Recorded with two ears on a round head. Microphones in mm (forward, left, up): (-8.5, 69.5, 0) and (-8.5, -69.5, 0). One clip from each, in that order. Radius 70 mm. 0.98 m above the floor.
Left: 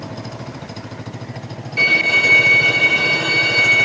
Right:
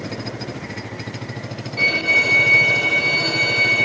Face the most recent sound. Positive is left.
turn(degrees=55)  # may be behind; listen again after turning